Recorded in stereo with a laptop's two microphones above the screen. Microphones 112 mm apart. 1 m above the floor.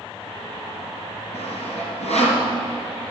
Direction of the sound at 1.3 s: 75° left (ahead or behind).